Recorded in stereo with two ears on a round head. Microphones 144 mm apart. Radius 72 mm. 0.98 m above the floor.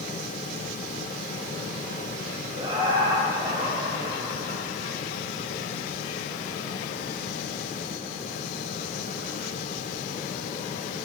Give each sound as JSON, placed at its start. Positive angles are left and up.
{"t": 2.6, "sound": "laughter", "side_deg": -25, "distance_m": 1.3}